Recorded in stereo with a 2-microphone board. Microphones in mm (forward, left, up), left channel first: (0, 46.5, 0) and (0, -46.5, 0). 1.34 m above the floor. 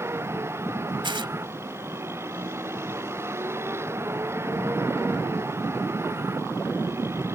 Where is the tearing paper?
60° right (ahead or behind).